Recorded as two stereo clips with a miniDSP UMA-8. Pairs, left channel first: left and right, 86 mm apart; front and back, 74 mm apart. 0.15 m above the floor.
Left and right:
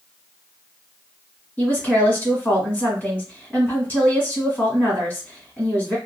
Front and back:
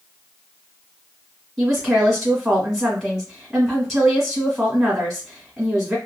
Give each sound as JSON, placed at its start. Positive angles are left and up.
{"t": 1.6, "sound": "a woman speaking", "azimuth_deg": 95, "distance_m": 1.6}